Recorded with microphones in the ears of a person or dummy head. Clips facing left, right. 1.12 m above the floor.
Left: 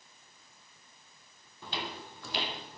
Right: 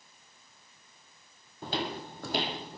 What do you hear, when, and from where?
1.6 s footsteps: 35° right (ahead or behind), 1.7 m; by 2.8 s 25° right (ahead or behind), 2.0 m